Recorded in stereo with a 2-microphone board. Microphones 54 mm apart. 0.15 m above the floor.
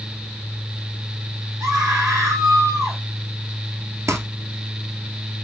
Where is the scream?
75° right (ahead or behind), 5 m.